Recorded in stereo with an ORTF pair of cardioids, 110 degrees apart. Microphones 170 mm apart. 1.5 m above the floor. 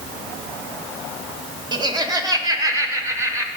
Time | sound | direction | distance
1.7 | laughter | 25° right | 1.8 m